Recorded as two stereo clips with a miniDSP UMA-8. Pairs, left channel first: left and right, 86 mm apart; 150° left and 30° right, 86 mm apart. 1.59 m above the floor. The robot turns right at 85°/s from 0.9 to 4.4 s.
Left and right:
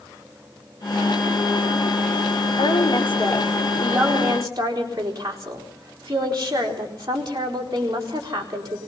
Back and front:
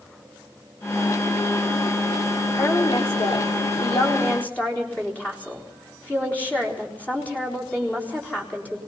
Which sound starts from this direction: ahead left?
A woman speaking, at 2.6 s.